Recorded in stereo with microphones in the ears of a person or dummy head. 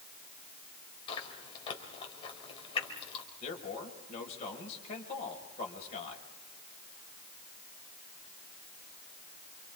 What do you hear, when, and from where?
1.1 s chewing: 20° left (ahead or behind), 4 m
3.4 s a man speaking: 30° left (ahead or behind), 5.5 m